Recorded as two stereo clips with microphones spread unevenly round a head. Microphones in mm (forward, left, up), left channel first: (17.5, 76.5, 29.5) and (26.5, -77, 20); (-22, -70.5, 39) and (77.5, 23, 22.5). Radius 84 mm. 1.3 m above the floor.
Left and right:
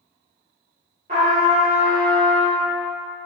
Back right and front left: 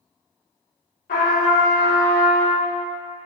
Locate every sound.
1.1 s a trumpet: 135° right, 1.2 m